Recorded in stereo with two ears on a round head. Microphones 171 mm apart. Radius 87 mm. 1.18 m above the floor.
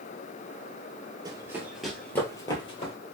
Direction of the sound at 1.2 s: 20° right (ahead or behind).